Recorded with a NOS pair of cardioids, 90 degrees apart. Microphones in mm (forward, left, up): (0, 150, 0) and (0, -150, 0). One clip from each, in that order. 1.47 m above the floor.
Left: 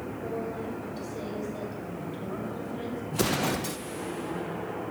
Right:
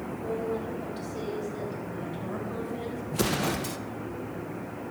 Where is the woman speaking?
25° right, 6.5 m; by 3.0 s 15° right, 6 m.